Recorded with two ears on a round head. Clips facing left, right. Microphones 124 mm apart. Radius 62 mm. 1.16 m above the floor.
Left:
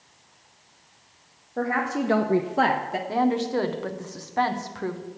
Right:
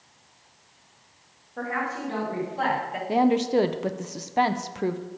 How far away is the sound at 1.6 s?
About 1.2 m.